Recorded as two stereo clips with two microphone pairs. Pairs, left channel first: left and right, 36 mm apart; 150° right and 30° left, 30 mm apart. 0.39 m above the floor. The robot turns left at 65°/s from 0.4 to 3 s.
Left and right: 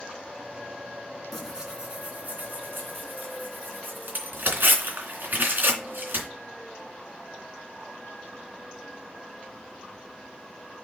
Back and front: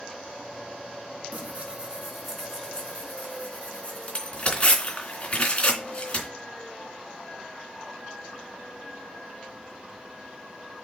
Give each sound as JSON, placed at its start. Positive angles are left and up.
{"t": 1.3, "sound": "tearing paper", "azimuth_deg": 0, "distance_m": 3.0}